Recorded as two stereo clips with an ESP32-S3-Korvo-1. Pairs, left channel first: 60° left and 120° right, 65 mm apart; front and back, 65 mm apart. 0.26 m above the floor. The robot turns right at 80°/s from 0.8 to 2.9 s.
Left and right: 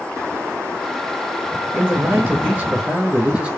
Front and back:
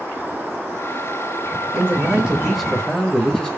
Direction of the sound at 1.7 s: 160° right.